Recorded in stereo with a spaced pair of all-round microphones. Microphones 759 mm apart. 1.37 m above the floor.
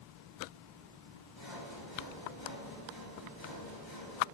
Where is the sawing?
35° left (ahead or behind), 5 m.